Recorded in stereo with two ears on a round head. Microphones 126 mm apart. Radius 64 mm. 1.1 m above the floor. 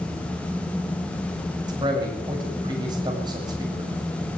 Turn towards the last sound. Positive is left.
turn(degrees=-30)  # may be behind; listen again after turning